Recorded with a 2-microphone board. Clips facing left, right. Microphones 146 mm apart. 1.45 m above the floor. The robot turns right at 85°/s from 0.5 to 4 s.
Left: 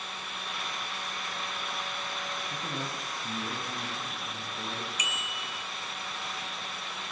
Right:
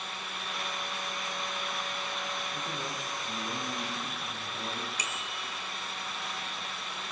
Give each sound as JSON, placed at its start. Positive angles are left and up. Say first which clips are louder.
{"t": 2.5, "sound": "a man speaking", "louder": "left 1 dB", "azimuth_deg": 80, "distance_m": 9.0}
{"t": 5.0, "sound": "a bicycle bell", "louder": "even", "side_deg": -35, "distance_m": 3.5}